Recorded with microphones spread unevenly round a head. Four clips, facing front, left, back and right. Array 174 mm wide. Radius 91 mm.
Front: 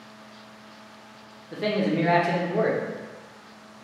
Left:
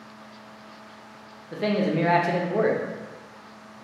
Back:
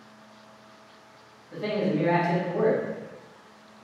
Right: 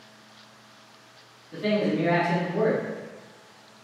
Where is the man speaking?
55° left, 0.9 m.